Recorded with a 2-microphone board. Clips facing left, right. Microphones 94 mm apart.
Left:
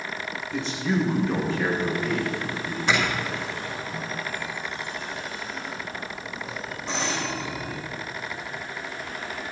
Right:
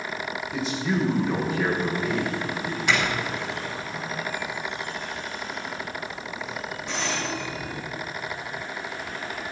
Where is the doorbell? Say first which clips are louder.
Left 1 dB; 30° left (ahead or behind), 7 m.